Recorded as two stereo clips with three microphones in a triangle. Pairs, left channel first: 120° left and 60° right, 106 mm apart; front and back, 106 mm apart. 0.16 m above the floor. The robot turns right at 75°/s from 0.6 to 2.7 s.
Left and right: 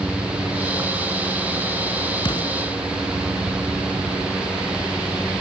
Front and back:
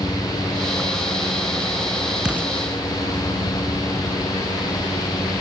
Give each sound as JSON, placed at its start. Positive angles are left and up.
{"t": 2.2, "sound": "an explosion", "azimuth_deg": 100, "distance_m": 1.5}